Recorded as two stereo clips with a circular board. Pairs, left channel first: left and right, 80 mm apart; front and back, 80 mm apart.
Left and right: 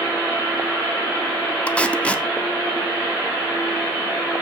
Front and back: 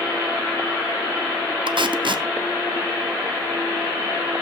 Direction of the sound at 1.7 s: 165° left.